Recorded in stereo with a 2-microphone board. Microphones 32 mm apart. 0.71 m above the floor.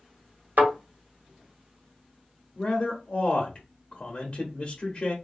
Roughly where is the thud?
Right.